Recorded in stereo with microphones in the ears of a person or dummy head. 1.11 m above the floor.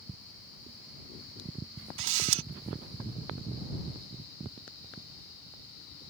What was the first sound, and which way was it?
A camera shutter, 70° right (ahead or behind).